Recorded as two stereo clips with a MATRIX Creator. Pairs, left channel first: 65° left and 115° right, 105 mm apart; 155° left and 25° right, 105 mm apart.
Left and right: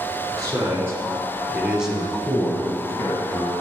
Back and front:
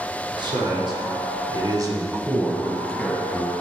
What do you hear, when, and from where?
0.3 s a man speaking: 55° right, 2 m; by 3.5 s 90° left, 1.3 m